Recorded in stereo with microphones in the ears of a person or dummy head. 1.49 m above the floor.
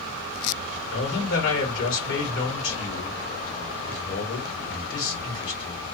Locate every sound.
0.9 s a man speaking: 70° left (ahead or behind), 1.4 m